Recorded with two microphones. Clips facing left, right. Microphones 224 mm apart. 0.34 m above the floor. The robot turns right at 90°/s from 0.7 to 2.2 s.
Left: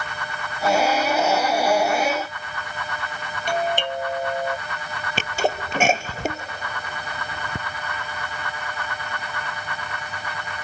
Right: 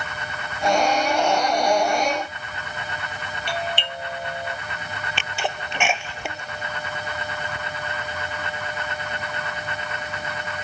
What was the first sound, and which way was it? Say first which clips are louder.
A doorbell: left 6 dB; 45° left (ahead or behind).